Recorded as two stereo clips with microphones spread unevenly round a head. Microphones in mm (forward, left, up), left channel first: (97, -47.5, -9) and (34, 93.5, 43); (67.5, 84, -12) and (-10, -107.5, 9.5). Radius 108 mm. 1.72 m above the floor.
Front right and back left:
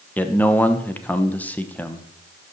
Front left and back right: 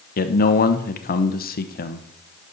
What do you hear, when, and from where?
0.2 s a man speaking: 25° left, 1.0 m